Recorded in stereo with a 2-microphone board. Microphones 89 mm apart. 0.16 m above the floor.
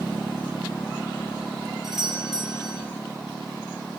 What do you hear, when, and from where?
1.8 s a doorbell: 5° right (ahead or behind), 5.5 m